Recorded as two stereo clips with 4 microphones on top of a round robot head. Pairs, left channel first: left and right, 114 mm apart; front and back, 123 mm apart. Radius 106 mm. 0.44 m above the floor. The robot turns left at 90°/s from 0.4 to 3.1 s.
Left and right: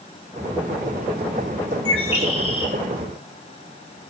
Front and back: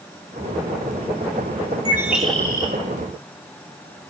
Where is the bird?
125° left, 2 m; by 2.7 s 45° left, 2 m.